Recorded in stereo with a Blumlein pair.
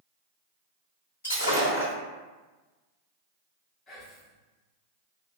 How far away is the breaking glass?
About 1.8 m.